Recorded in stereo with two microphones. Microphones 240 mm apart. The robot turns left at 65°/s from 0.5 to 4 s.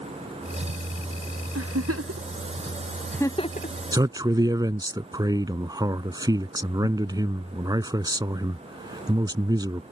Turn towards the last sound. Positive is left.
turn(degrees=-15)  # may be behind; listen again after turning